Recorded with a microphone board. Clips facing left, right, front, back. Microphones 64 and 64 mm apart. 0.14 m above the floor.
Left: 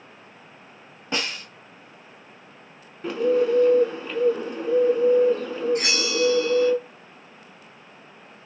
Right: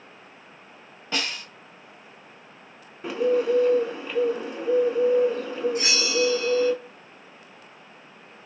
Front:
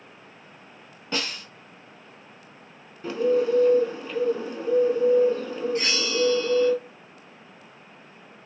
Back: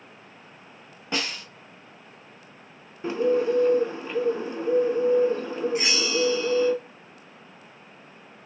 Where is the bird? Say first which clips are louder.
Left 1 dB, even; 170° right, 0.6 m.